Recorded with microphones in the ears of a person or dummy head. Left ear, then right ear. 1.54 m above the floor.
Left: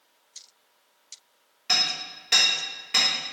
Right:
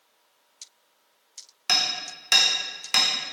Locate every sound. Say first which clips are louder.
1.7 s hammering: even; 40° right (ahead or behind), 1.4 m